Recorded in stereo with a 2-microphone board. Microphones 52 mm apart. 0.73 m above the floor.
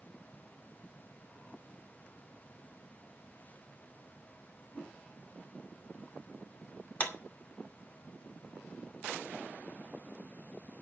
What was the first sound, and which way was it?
A whoosh, 35° left (ahead or behind).